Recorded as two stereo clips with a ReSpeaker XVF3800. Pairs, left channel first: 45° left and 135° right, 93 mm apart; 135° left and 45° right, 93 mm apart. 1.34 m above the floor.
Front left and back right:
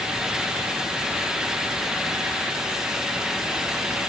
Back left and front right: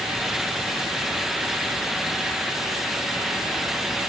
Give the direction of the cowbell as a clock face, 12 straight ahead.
I don't hear a cowbell.